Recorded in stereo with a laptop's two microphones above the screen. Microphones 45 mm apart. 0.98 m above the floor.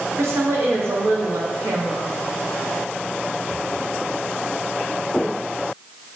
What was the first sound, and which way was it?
A woman speaking, 70° right (ahead or behind).